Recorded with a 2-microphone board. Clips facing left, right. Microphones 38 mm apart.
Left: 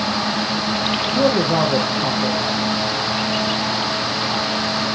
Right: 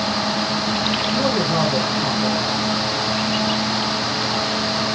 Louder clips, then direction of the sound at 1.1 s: Left 5 dB; 75° left (ahead or behind).